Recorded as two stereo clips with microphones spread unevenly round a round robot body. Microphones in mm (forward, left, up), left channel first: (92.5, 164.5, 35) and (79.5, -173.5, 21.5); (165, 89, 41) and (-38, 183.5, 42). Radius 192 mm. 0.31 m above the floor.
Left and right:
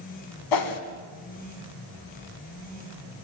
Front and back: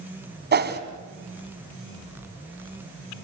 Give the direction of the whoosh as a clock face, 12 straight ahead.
8 o'clock.